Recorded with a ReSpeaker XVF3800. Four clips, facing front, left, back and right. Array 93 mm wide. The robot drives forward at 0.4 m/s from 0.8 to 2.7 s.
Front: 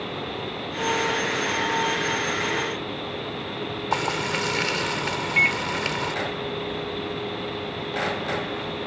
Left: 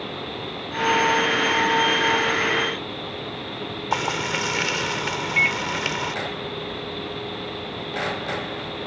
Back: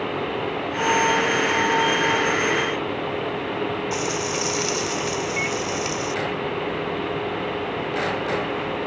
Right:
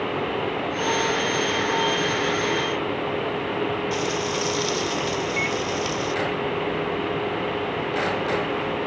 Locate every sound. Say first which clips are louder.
3.9 s frying: even, even; 55° left
5.4 s a microwave: left 3 dB, front 3 dB; 45° left